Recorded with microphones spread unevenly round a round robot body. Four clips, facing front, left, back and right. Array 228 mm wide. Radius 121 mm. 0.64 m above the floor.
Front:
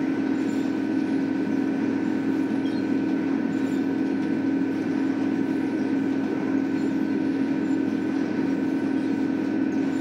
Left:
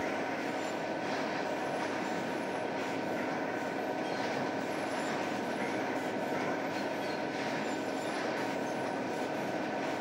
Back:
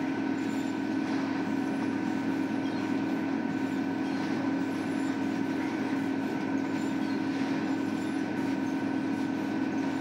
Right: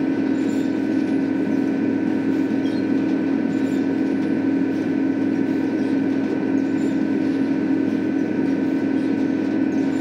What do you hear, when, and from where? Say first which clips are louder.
0.0 s an engine running: right 15 dB, front 6 dB; 70° right